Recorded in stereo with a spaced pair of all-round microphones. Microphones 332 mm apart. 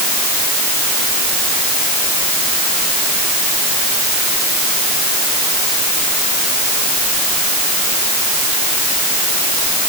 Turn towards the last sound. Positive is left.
No sound to turn to.